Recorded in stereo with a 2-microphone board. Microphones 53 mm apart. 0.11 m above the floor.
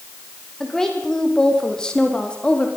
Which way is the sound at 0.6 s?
10° left (ahead or behind).